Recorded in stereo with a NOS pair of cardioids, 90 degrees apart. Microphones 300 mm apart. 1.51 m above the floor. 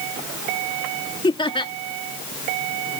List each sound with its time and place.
1.2 s laughter: 15° left